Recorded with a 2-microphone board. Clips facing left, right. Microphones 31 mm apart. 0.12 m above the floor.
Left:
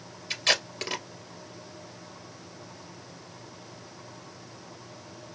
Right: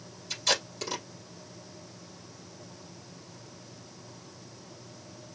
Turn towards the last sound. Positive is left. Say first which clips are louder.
# left 3 dB
turn(degrees=55)  # may be behind; listen again after turning